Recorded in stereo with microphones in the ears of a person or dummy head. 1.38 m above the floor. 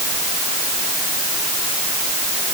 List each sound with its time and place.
Only background noise.